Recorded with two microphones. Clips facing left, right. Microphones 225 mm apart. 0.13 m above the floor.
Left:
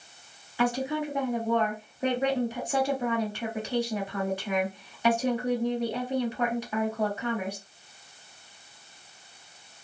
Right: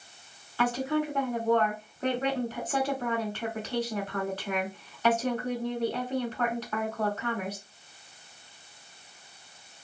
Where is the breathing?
I don't hear breathing.